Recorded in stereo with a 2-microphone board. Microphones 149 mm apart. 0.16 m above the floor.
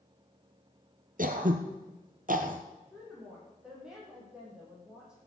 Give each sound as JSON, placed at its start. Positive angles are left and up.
{"t": 1.2, "sound": "throat clearing", "side_deg": -65, "distance_m": 1.5}
{"t": 2.9, "sound": "a woman speaking", "side_deg": -5, "distance_m": 7.5}